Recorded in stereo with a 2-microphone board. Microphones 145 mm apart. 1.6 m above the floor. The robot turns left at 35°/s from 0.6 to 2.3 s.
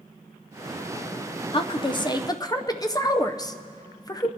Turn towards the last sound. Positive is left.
turn(degrees=25)  # may be behind; listen again after turning